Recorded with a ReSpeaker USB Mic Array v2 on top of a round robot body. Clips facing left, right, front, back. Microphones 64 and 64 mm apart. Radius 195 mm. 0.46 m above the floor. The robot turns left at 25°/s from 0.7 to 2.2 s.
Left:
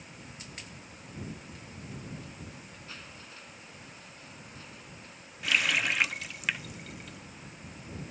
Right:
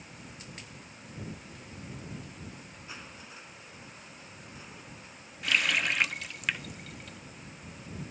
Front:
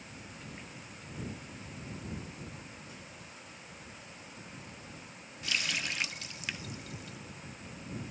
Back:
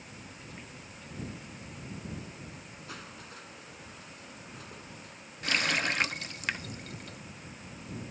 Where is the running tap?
175° left.